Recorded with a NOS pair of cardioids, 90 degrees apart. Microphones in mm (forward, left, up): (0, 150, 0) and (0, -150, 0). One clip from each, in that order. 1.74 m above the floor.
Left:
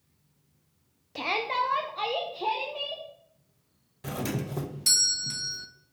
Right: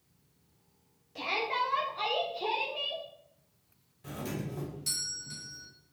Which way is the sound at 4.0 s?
65° left.